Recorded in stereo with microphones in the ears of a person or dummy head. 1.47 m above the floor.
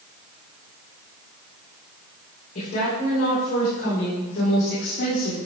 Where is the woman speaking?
45° left (ahead or behind), 4.5 m; by 5.4 s 65° left (ahead or behind), 3 m.